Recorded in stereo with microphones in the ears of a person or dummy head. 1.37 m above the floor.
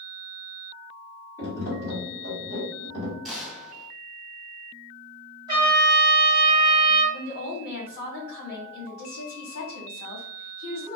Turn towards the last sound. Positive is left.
turn(degrees=50)  # may be behind; listen again after turning